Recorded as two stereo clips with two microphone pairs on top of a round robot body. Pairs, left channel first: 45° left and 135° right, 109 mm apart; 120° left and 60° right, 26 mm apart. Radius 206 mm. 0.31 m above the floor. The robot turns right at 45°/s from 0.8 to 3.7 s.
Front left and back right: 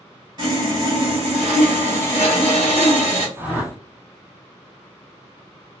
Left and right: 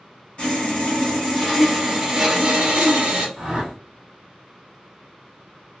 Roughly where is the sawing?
Behind.